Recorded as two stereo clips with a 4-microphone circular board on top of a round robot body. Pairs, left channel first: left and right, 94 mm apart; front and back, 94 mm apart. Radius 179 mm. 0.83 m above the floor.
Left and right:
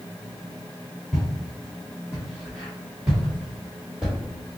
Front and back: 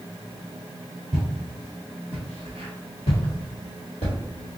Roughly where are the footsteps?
Behind.